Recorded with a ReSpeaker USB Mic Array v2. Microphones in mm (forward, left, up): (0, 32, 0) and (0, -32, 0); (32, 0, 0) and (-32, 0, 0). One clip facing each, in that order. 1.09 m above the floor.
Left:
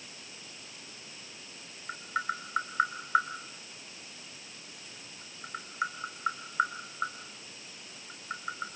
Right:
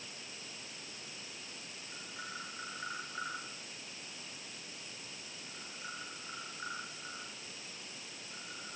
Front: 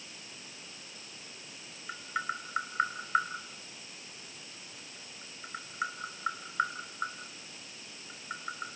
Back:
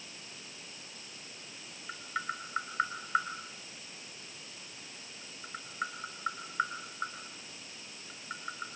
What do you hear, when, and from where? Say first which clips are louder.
1.9 s tapping: left 14 dB, front 2 dB; 85° left, 4 m